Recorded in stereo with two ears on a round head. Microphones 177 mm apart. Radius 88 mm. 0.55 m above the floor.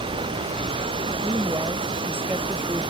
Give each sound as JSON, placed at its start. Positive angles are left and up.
{"t": 0.0, "sound": "running water", "side_deg": -25}
{"t": 1.2, "sound": "a woman speaking", "side_deg": -10}